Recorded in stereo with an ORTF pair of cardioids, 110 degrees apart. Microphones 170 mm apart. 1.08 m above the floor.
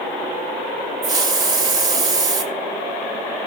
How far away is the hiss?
About 3 m.